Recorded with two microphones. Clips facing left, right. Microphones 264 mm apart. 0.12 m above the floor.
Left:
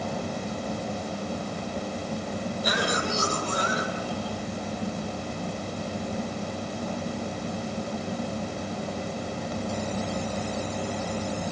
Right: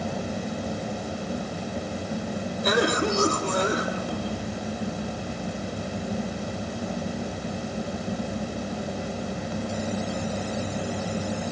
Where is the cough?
60° right (ahead or behind), 3.5 m.